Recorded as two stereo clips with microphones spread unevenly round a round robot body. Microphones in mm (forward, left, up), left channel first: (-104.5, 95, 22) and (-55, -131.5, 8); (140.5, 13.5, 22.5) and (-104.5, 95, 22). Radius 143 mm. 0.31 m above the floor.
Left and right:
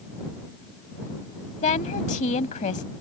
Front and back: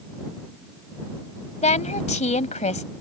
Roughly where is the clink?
No clink in this recording.